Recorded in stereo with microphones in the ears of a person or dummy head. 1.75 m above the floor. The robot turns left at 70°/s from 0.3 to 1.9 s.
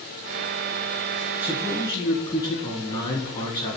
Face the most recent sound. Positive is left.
turn(degrees=155)